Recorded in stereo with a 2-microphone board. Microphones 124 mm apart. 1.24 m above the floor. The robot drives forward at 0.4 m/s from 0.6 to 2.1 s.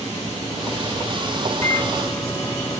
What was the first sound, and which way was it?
A microwave, 25° left (ahead or behind).